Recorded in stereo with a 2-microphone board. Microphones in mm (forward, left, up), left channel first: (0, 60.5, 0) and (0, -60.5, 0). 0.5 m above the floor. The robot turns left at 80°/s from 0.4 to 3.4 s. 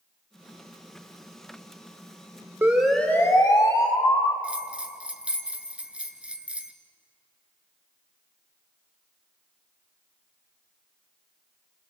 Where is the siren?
20° right (ahead or behind), 2 m; by 4.3 s 35° left (ahead or behind), 1.6 m.